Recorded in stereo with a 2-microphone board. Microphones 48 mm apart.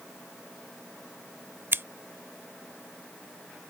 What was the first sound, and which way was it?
Scissors, 55° right (ahead or behind).